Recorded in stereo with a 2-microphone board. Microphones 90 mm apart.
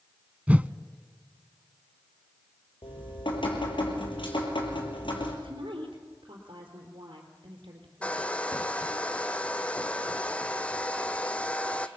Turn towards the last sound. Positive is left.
turn(degrees=15)  # may be behind; listen again after turning